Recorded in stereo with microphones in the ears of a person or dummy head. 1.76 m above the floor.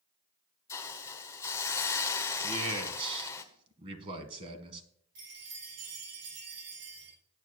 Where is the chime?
60° right (ahead or behind), 5.5 m.